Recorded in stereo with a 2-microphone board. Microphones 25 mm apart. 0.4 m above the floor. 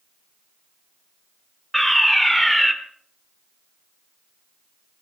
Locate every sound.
1.7 s a fire alarm: 10° left (ahead or behind), 1.8 m